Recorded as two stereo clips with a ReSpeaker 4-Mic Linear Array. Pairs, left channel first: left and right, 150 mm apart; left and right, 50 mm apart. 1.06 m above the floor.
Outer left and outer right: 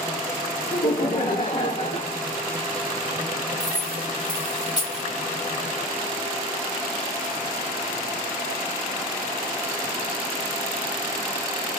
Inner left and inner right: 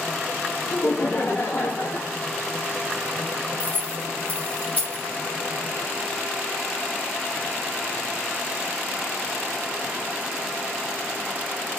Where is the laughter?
70° left (ahead or behind), 1.1 m.